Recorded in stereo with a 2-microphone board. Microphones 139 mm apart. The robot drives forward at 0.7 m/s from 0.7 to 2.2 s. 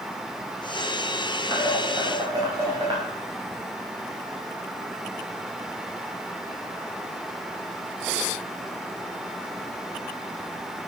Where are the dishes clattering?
35° right (ahead or behind), 9 m.